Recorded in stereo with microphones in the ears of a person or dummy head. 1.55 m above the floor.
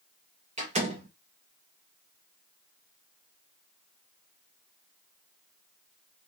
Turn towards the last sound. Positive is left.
turn(degrees=-35)  # may be behind; listen again after turning